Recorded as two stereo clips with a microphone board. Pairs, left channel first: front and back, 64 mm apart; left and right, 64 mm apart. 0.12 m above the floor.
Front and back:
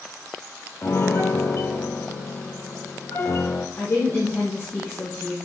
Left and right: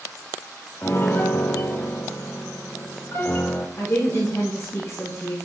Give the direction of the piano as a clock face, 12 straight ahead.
11 o'clock.